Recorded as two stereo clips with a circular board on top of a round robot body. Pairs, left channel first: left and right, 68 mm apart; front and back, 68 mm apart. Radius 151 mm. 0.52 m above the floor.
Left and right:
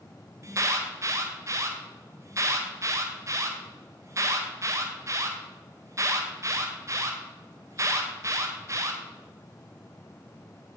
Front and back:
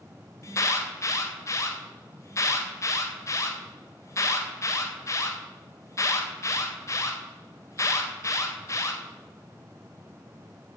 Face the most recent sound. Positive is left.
turn(degrees=-45)